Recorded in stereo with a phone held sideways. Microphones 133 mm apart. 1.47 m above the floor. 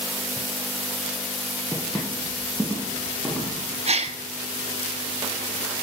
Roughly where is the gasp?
Right.